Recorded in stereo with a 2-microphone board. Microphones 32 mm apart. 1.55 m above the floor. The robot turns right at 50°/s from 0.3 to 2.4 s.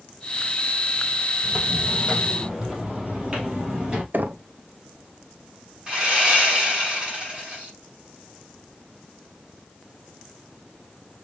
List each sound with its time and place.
1.4 s footsteps: 60° right (ahead or behind), 4 m; by 4.0 s 30° right (ahead or behind), 2 m
4.1 s knocking: 70° right (ahead or behind), 0.6 m
5.9 s sawing: 30° right (ahead or behind), 2 m